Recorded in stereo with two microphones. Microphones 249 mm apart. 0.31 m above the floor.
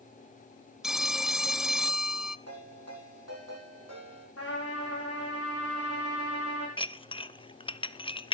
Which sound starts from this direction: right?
A ringtone, at 2.5 s.